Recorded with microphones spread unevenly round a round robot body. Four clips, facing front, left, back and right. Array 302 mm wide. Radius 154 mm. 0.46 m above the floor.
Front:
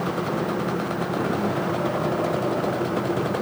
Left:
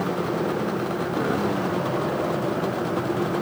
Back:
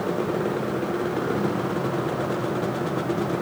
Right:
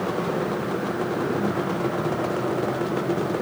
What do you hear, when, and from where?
Only background noise.